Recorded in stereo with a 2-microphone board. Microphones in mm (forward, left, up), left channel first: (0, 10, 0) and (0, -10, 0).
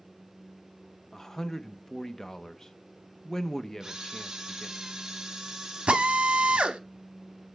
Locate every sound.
1.1 s a man speaking: 30° left (ahead or behind), 0.5 m
3.8 s a camera shutter: 25° right (ahead or behind), 1.3 m
5.9 s a drill: 75° right (ahead or behind), 0.9 m